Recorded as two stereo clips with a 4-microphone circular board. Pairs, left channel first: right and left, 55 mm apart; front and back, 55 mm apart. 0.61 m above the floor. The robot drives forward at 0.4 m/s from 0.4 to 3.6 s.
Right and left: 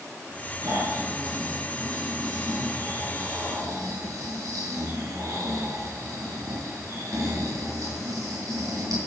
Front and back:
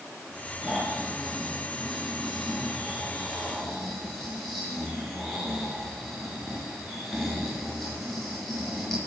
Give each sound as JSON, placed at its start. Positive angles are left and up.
{"t": 0.6, "sound": "snoring", "azimuth_deg": 75, "distance_m": 5.5}